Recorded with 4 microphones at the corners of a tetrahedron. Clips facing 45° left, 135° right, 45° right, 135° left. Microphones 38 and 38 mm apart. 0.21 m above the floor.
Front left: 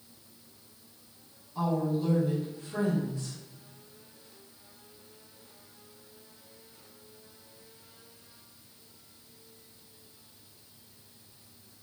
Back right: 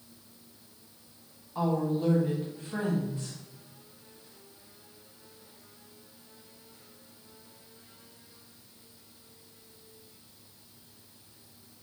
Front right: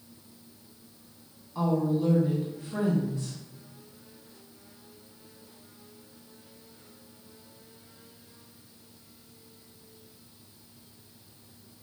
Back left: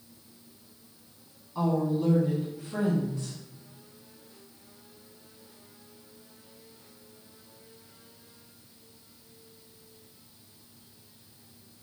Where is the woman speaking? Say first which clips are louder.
Back right 1 dB, front right 1 dB; 135° right, 1.2 m.